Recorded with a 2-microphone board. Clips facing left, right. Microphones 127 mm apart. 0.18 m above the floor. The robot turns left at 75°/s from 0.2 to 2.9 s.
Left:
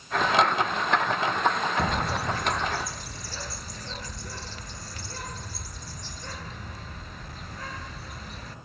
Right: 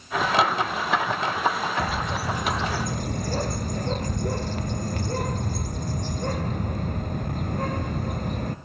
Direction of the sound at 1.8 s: 30° left.